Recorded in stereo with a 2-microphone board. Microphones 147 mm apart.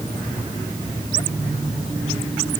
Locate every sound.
Only background noise.